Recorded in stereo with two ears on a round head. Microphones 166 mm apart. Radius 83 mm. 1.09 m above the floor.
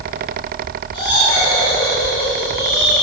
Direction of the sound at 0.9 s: 30° left (ahead or behind).